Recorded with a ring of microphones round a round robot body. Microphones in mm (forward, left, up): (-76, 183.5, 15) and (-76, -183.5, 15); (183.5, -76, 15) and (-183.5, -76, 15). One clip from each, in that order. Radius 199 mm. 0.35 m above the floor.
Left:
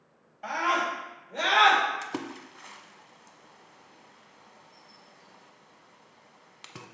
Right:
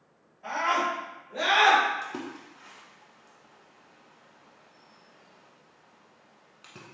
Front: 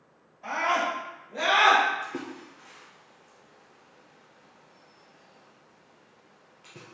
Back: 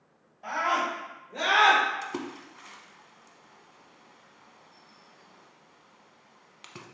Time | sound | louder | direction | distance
0.4 | a scream | even, front 1 dB | 95° left | 2.0 m
2.0 | a splash | left 1 dB, even | 150° left | 0.6 m